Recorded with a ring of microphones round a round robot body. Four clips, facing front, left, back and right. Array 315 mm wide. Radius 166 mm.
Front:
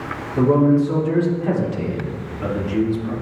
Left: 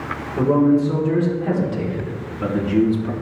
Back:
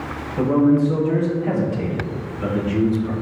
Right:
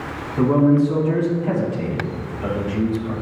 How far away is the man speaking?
About 3 m.